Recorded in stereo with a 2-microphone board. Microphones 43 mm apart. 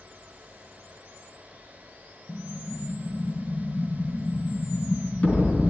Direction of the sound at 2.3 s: 40° left (ahead or behind).